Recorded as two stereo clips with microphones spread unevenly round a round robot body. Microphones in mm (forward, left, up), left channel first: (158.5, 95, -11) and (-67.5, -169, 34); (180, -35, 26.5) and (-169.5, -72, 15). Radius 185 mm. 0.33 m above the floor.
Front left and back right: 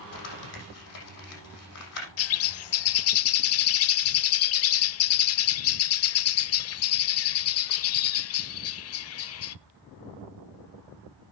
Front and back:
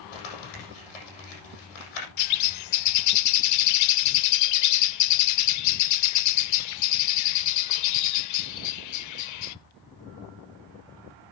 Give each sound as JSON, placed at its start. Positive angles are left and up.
{"t": 0.1, "sound": "crumpling", "azimuth_deg": 5, "distance_m": 7.0}
{"t": 2.2, "sound": "a bird", "azimuth_deg": 30, "distance_m": 0.5}